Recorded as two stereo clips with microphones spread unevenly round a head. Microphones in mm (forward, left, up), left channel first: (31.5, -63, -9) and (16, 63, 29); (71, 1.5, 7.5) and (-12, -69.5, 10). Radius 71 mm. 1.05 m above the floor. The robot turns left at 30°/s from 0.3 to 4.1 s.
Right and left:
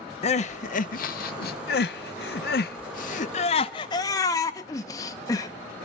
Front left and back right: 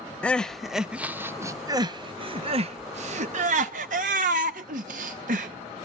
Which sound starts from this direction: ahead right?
Crying, at 0.2 s.